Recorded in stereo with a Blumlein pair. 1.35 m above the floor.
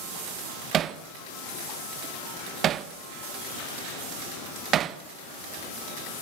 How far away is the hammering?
About 1.2 m.